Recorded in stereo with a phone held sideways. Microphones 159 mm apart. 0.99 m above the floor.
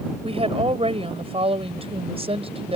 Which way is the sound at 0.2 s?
35° right (ahead or behind).